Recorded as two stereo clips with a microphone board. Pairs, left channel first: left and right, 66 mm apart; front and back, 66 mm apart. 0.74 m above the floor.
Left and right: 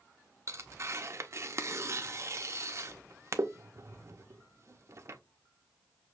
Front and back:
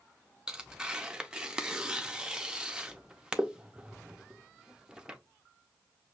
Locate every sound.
0.5 s tearing paper: 105° right, 0.6 m